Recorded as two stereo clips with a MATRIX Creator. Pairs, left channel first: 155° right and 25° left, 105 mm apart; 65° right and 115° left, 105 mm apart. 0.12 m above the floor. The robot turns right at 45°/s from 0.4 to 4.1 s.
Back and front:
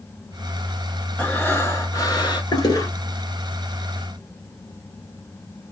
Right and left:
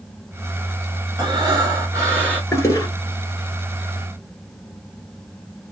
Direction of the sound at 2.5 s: 125° right.